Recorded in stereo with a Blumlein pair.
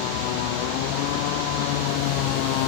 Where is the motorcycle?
45° left.